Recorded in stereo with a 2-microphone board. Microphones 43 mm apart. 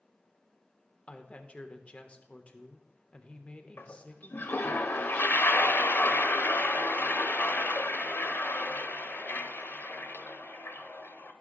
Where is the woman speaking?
30° left (ahead or behind), 1.1 m.